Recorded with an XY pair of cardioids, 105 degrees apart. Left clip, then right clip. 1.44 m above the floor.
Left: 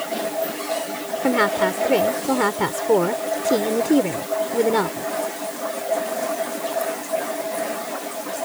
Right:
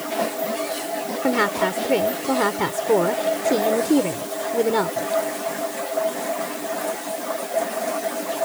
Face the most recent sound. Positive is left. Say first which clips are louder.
# left 2 dB
turn(degrees=10)